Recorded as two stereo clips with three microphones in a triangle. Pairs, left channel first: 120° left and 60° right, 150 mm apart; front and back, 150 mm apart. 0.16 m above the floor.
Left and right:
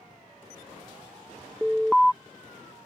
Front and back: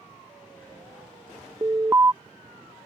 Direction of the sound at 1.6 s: 155° right.